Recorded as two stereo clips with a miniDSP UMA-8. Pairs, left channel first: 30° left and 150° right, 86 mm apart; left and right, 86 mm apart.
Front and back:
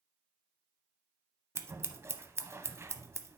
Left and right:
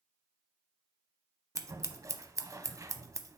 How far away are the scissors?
About 0.5 m.